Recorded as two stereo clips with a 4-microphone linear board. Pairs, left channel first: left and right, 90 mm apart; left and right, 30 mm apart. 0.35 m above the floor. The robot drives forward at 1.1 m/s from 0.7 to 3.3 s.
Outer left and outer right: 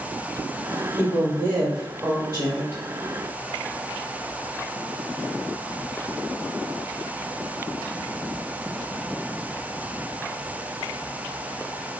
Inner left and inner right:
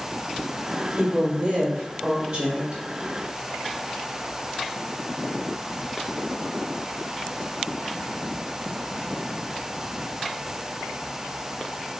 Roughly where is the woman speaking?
Centre.